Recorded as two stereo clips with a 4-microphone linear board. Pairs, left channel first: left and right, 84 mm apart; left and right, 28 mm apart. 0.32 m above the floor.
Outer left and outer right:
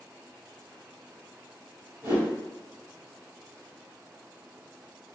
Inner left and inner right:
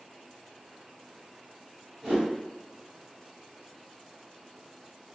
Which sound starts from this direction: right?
A whoosh, at 2.0 s.